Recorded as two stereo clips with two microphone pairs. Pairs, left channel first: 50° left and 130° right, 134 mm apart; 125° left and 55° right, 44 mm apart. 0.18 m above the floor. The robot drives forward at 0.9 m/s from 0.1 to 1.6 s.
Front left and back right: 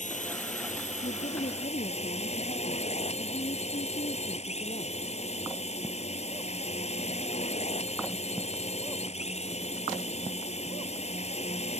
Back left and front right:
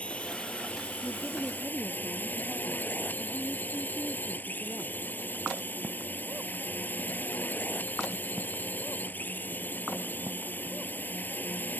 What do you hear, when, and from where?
0.0 s a drone: 65° left; by 11.8 s 80° left
1.0 s a woman speaking: 65° left; by 5.0 s 70° left